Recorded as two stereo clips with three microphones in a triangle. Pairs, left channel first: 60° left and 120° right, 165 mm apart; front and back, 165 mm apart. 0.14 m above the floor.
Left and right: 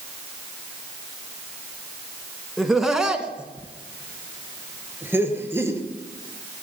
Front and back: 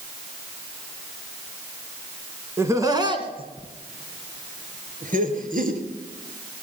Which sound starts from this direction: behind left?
Laughter, at 2.6 s.